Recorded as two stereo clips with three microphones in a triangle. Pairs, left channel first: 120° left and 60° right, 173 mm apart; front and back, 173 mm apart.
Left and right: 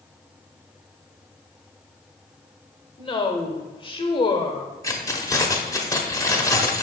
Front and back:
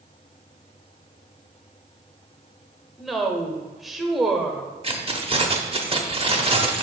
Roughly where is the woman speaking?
Left.